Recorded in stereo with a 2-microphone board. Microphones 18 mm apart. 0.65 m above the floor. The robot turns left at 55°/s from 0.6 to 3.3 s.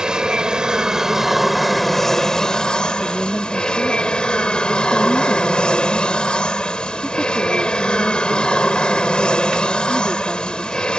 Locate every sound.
0.0 s an aircraft: 120° right; by 11.0 s 90° left
3.0 s a woman speaking: 15° left (ahead or behind); by 10.9 s 30° left (ahead or behind)